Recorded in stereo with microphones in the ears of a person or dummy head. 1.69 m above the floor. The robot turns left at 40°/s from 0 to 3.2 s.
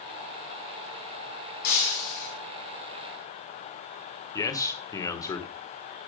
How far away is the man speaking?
About 1.4 m.